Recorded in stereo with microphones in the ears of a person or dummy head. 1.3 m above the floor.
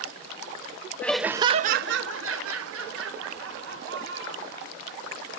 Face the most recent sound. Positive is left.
turn(degrees=-70)  # may be behind; listen again after turning